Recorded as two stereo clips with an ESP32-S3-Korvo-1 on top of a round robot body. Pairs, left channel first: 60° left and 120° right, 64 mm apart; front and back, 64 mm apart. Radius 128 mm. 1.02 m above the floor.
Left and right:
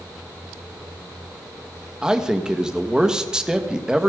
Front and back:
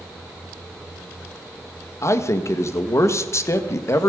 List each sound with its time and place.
2.0 s a man speaking: 40° right, 1.5 m